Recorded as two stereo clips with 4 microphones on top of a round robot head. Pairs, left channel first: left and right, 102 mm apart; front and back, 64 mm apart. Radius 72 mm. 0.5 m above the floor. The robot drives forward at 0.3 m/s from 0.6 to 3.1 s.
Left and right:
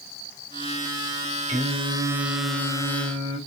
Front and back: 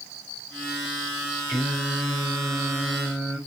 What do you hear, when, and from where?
1.5 s singing: 90° right, 2.5 m; by 3.4 s 100° right, 2.5 m